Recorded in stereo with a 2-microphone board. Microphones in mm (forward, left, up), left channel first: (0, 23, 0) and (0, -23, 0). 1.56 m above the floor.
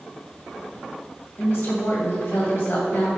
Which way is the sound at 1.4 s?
50° left (ahead or behind).